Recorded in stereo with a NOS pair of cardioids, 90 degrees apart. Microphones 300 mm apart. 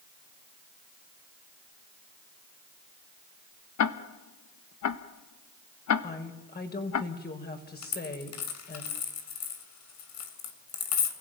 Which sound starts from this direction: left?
A dropped coin, at 7.8 s.